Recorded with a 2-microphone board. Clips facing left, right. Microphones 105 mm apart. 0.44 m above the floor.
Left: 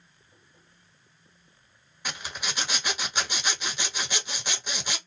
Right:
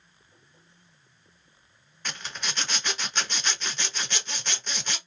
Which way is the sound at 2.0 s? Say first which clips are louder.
Left 1 dB; 10° left (ahead or behind).